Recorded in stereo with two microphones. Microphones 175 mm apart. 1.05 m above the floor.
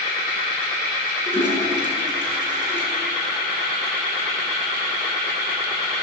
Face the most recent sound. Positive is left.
turn(degrees=-25)  # may be behind; listen again after turning